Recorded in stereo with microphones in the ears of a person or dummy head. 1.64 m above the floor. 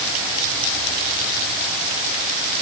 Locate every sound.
Only background noise.